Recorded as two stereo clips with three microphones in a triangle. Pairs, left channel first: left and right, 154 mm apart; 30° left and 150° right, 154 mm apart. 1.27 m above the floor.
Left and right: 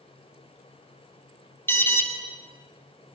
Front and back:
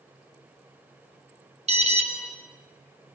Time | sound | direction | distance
1.7 | an alarm | 165° left | 3 m